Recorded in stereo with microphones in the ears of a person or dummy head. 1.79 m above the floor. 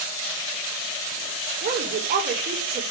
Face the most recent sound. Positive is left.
turn(degrees=-45)  # may be behind; listen again after turning